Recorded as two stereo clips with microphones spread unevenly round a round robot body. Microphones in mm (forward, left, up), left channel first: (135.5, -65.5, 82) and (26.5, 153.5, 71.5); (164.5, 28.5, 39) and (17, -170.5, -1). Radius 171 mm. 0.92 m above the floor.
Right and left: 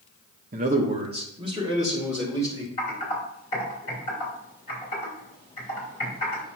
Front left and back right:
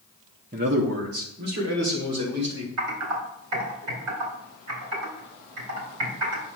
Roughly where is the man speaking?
Behind.